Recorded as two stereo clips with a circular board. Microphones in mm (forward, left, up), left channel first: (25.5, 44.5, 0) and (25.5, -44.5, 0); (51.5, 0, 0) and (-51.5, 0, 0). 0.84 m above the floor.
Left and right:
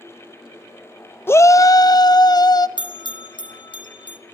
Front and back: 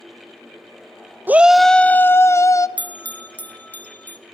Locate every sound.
1.3 s a shout: 125° left, 0.5 m; by 2.7 s 55° left, 1.1 m
2.8 s a bell: 75° left, 1.2 m